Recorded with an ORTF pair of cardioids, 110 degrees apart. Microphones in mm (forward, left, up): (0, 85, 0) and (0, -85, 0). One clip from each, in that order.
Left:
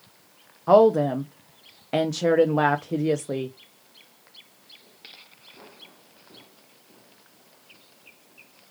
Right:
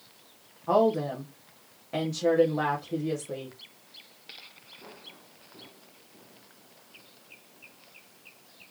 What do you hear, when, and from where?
0.7 s a woman speaking: 45° left, 0.8 m